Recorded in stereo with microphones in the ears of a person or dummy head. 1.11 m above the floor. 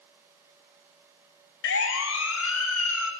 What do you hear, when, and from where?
1.6 s a siren: 70° left (ahead or behind), 2.5 m; by 3.1 s 80° left, 3 m